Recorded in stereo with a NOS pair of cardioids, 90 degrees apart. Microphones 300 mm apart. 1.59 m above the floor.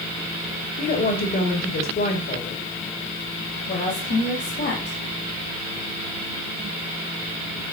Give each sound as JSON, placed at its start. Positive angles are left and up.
{"t": 0.8, "sound": "a woman speaking", "azimuth_deg": 35, "distance_m": 2.0}
{"t": 3.7, "sound": "a woman speaking", "azimuth_deg": 45, "distance_m": 2.5}